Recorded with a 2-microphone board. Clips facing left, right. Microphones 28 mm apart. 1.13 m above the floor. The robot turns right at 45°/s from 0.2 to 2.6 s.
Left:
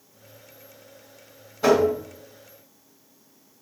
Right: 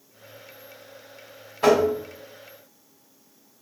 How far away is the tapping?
About 1.5 m.